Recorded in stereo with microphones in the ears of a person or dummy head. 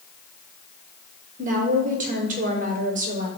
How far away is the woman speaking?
About 0.8 m.